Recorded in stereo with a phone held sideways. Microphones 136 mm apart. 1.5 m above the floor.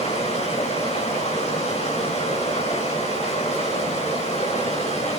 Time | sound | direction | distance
0.0 | running water | 55° left (ahead or behind) | 4.5 m